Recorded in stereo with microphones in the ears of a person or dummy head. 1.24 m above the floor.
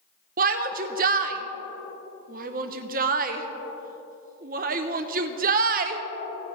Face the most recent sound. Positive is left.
turn(degrees=-45)  # may be behind; listen again after turning